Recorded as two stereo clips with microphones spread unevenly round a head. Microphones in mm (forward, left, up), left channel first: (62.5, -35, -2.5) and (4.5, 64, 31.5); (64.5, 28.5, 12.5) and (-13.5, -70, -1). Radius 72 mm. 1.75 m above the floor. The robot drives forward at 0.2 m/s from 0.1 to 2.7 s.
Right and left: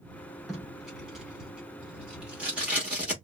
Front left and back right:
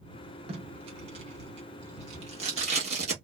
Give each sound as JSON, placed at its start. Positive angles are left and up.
{"t": 0.5, "sound": "tape being pulled", "azimuth_deg": -165, "distance_m": 1.2}